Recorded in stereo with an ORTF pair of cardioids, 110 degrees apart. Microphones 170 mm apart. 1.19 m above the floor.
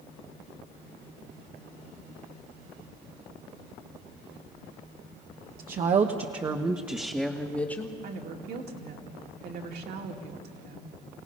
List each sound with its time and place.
5.6 s a woman speaking: 55° right, 1.2 m; by 7.9 s 15° left, 1.8 m
8.0 s a woman speaking: 65° right, 2.5 m